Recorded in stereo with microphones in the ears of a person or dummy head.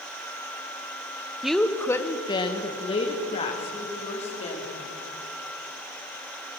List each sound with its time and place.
1.4 s a woman speaking: 5° right (ahead or behind), 0.6 m; by 4.8 s 25° left (ahead or behind), 3.5 m